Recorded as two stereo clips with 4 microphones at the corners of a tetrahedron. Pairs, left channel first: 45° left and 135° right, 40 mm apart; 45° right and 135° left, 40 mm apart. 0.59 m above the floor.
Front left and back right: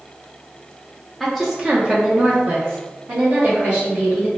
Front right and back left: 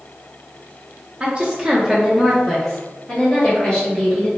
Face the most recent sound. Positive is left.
turn(degrees=-115)